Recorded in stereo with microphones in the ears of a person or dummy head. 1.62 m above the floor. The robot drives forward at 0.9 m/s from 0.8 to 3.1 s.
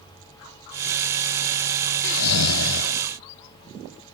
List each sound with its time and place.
2.0 s snoring: 60° left (ahead or behind); by 3.0 s 40° left (ahead or behind)